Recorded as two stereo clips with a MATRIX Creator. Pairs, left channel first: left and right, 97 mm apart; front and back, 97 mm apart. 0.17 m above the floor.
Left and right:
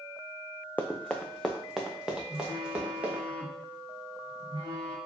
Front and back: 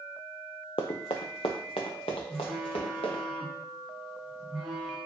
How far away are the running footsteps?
About 0.7 m.